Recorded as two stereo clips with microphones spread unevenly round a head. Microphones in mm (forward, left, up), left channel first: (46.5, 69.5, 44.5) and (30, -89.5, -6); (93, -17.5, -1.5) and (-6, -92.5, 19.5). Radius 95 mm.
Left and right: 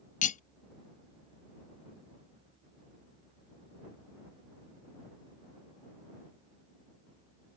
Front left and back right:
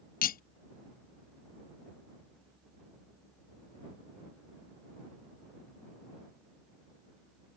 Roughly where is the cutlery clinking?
Ahead left.